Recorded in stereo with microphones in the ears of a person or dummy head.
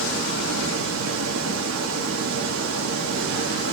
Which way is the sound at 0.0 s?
85° right.